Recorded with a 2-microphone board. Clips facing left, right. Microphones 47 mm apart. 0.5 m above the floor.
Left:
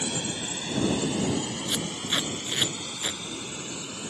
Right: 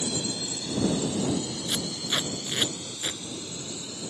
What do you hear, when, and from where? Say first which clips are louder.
0.0 s a drone: even; 55° left (ahead or behind); by 4.1 s 45° left (ahead or behind)
1.7 s tape being pulled: even; 5° left (ahead or behind)